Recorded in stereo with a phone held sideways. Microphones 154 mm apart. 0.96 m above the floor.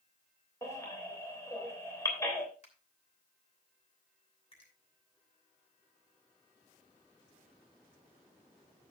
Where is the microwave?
I don't hear a microwave.